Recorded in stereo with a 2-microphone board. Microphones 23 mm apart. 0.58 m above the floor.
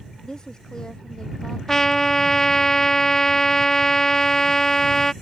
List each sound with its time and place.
0.2 s a woman speaking: 35° left (ahead or behind)
1.7 s a trumpet: 20° left (ahead or behind)